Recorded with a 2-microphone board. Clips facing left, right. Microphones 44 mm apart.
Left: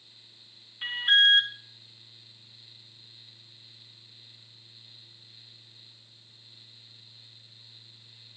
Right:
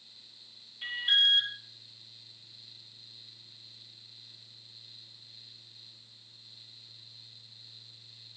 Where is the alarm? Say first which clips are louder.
Left 5 dB; 50° left (ahead or behind), 1.0 m.